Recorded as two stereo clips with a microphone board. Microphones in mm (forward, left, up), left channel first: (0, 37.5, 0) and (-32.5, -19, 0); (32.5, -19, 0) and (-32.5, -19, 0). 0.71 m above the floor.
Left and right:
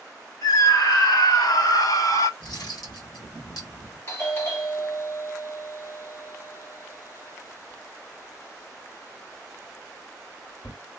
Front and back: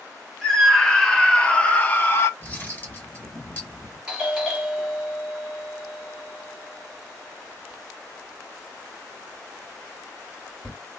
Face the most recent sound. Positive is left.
turn(degrees=100)